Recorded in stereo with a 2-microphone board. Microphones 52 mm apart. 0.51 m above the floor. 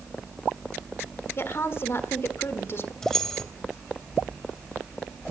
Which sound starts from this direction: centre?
Keys jangling, at 3.0 s.